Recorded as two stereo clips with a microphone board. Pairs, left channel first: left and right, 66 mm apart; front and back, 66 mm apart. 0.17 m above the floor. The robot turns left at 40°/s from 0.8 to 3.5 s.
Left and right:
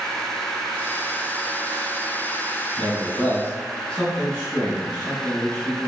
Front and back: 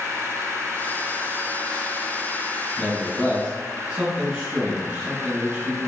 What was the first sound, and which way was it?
A man speaking, 170° left.